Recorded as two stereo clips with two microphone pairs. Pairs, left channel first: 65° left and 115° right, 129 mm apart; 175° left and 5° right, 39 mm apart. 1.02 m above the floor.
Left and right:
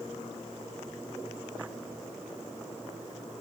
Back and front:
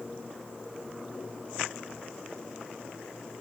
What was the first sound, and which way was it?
Only background noise.